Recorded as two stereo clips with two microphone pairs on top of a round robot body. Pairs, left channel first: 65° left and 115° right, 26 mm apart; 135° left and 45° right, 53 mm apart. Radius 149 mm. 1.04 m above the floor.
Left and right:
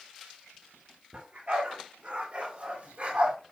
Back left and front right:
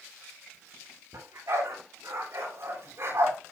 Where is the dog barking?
70° right, 7 m; by 3.4 s 75° right, 5 m.